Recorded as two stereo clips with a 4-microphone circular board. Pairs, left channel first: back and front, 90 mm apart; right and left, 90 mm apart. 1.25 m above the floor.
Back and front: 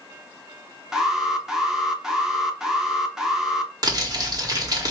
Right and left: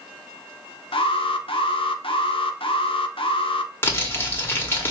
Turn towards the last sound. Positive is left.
turn(degrees=-30)